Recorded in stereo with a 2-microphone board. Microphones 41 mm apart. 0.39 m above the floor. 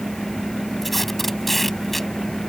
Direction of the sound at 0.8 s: 5° left (ahead or behind).